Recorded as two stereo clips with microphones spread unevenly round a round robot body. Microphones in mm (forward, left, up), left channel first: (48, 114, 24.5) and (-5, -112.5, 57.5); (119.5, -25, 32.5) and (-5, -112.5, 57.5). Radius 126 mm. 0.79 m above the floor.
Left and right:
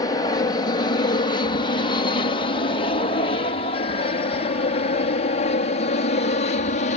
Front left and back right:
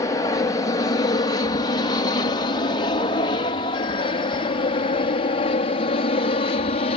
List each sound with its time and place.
0.0 s an aircraft: 40° left